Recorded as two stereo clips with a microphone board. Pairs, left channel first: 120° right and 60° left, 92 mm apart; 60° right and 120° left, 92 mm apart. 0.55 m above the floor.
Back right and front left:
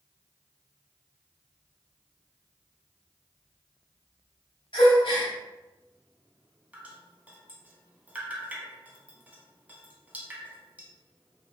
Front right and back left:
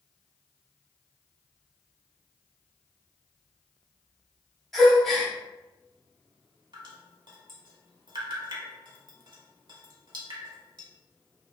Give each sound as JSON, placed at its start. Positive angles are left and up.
{"t": 4.7, "sound": "a gasp", "azimuth_deg": -150, "distance_m": 0.8}
{"t": 6.7, "sound": "dripping", "azimuth_deg": 130, "distance_m": 0.6}